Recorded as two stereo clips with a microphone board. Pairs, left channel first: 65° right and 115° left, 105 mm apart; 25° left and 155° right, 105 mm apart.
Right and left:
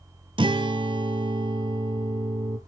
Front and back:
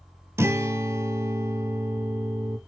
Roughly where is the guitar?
Behind left.